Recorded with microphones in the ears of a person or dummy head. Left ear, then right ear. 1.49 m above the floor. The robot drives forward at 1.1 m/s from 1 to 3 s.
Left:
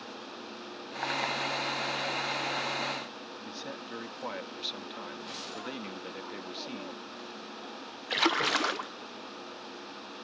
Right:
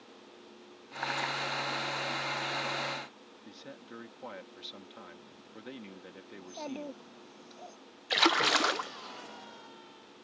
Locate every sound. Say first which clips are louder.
3.5 s a man speaking: left 6 dB; 20° left (ahead or behind)
6.3 s a child speaking: left 2 dB; 55° right (ahead or behind)
8.1 s a splash: right 2 dB; 20° right (ahead or behind)